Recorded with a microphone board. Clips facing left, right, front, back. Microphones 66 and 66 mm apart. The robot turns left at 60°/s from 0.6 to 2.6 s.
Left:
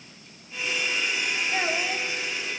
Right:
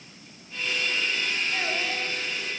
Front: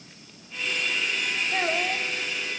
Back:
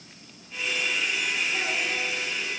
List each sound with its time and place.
1.5 s a child speaking: 30° left, 2.0 m; by 2.1 s 5° right, 2.0 m